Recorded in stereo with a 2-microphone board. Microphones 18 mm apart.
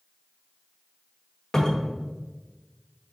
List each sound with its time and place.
1.5 s a cupboard door: 25° left (ahead or behind), 0.9 m